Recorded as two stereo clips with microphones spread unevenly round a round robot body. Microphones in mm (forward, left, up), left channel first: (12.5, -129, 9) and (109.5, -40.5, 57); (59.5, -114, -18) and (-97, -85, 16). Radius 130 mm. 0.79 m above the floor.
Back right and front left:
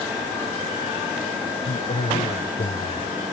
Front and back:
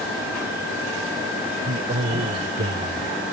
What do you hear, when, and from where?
1.6 s a man speaking: straight behind; by 3.1 s 170° left